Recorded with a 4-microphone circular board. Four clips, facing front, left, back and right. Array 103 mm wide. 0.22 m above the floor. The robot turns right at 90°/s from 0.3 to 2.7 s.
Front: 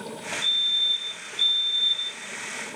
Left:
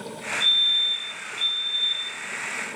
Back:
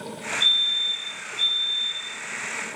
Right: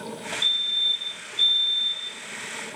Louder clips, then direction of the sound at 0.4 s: Left 3 dB, back 2 dB; 145° right.